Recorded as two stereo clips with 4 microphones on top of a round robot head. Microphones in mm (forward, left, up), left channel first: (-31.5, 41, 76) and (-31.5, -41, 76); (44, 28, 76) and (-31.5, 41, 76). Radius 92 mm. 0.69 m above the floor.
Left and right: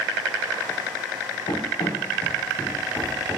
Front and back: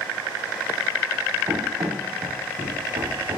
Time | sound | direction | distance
1.5 | running footsteps | 120° left | 2.5 m